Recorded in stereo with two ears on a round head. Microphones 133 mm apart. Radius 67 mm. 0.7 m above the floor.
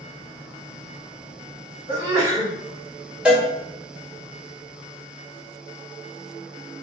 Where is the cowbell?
5° right (ahead or behind), 1.2 m.